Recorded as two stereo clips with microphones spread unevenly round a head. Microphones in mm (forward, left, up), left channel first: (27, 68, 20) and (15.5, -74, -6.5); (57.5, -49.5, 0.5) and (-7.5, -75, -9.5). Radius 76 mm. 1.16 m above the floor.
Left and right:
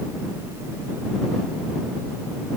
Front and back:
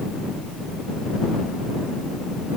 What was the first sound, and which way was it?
Only background noise.